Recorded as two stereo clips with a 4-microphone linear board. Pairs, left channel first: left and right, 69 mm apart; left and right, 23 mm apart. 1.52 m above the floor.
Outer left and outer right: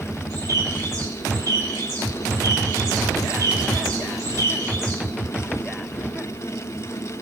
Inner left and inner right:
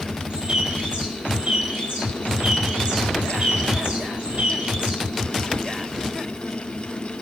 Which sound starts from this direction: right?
A bird, at 0.3 s.